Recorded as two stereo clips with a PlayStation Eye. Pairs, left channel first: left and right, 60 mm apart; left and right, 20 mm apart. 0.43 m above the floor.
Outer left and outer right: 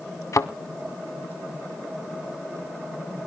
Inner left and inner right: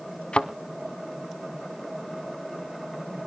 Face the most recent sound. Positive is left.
turn(degrees=60)  # may be behind; listen again after turning